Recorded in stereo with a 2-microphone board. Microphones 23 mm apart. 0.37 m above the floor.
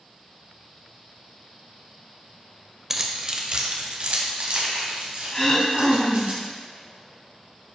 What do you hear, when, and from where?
2.9 s keys jangling: 20° right (ahead or behind), 0.8 m; by 6.3 s 75° right (ahead or behind), 2.5 m
5.3 s throat clearing: 20° left (ahead or behind), 1.6 m